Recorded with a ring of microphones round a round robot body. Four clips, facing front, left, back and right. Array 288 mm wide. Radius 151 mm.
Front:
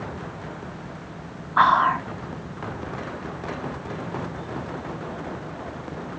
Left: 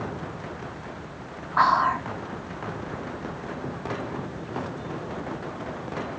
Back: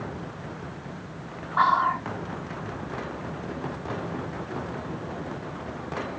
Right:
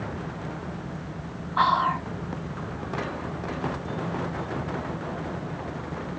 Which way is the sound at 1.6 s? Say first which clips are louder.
Left 2 dB, front 4 dB; 20° left.